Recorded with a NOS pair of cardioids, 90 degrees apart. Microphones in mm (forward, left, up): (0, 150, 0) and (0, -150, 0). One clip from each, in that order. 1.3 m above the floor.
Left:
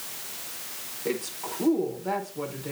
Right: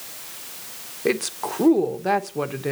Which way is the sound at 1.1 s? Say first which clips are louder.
Right 8 dB; 65° right.